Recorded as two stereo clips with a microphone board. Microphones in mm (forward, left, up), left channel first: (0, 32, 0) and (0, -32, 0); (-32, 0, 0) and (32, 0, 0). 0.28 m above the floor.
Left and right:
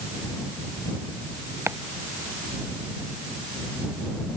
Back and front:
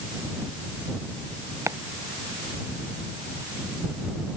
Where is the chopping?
40° right.